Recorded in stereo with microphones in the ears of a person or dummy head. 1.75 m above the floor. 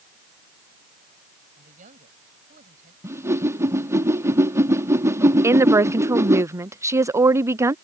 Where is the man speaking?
40° right (ahead or behind).